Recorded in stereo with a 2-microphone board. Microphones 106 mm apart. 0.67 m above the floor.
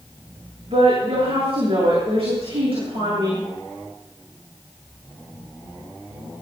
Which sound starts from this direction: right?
A woman speaking, at 0.7 s.